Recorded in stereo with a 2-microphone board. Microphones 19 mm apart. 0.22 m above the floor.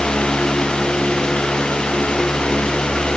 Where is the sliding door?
I don't hear a sliding door.